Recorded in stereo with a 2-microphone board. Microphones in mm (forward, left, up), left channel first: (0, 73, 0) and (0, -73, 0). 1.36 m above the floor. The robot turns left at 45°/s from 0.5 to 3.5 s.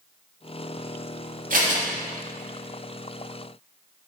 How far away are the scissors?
About 2.5 m.